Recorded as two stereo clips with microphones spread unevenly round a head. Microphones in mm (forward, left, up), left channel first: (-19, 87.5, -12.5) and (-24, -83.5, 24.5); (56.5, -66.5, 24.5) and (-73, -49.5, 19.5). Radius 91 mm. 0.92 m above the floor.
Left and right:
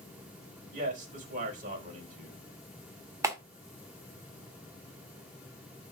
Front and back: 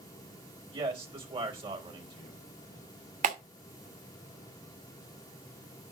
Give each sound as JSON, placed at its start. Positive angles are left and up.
{"t": 0.7, "sound": "a man speaking", "azimuth_deg": -140, "distance_m": 4.0}
{"t": 3.2, "sound": "a clap", "azimuth_deg": -165, "distance_m": 2.0}